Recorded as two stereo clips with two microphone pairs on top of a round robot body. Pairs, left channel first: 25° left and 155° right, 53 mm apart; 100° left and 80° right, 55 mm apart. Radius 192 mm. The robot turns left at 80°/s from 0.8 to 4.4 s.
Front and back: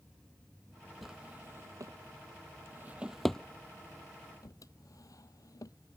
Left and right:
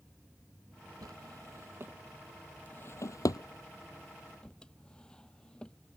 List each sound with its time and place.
1.0 s a drawer: 70° right; by 6.0 s 20° left